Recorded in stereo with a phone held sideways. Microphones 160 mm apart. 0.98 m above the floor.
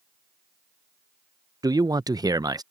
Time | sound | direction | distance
1.6 | a man speaking | 25° right (ahead or behind) | ?